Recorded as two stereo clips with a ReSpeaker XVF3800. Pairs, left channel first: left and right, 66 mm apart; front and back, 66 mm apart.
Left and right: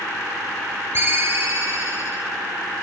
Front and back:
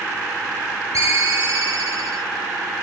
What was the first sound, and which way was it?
A ringtone, 140° right.